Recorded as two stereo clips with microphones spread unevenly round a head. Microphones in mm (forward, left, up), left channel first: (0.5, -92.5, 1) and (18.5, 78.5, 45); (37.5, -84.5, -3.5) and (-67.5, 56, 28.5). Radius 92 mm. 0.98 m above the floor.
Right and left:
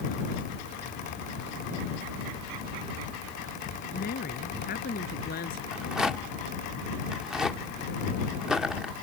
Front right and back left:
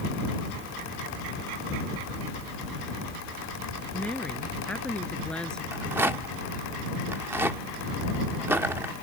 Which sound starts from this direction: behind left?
A rattle, at 5.7 s.